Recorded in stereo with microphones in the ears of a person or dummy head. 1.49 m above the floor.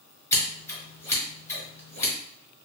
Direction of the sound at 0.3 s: 15° left (ahead or behind).